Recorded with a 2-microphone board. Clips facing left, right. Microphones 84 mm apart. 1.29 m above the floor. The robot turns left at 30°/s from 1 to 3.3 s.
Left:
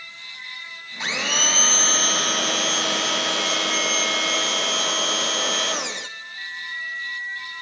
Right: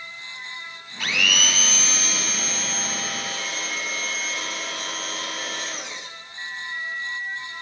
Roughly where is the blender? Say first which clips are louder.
Right 1 dB; behind.